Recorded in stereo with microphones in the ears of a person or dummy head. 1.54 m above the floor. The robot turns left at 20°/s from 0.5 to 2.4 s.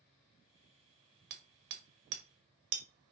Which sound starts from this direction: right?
Hammering, at 1.3 s.